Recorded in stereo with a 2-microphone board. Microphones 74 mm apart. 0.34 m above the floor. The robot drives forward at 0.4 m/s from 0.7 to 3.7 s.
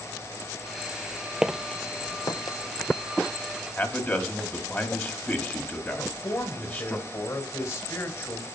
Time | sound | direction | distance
1.4 | footsteps | 10° right (ahead or behind) | 0.6 m
3.8 | a man speaking | 30° left (ahead or behind) | 2.5 m
6.0 | a man speaking | 45° left (ahead or behind) | 2.0 m